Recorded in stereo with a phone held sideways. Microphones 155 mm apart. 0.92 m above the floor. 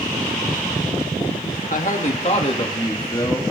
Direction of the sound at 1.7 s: 55° left (ahead or behind).